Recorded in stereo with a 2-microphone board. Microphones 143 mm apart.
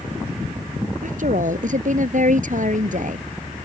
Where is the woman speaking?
65° right (ahead or behind).